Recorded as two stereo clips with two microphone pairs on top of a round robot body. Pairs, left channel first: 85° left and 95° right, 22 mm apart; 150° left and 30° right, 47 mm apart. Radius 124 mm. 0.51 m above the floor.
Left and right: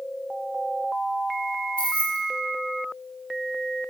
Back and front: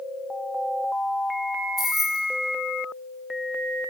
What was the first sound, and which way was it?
Keys jangling, 55° left.